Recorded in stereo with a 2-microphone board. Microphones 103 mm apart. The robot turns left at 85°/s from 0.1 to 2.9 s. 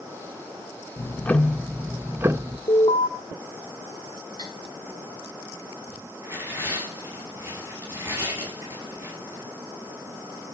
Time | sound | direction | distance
1.0 | ticking | 25° left (ahead or behind) | 0.5 m
2.7 | an alarm | 70° left (ahead or behind) | 1.1 m
4.4 | cutlery clinking | 50° left (ahead or behind) | 2.5 m
6.2 | tearing paper | 20° right (ahead or behind) | 6 m